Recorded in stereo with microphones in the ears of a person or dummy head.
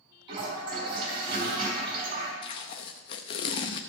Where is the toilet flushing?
30° right (ahead or behind), 4 m.